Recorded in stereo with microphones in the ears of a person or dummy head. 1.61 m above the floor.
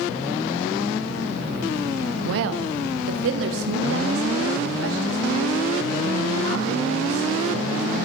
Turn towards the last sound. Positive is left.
turn(degrees=-85)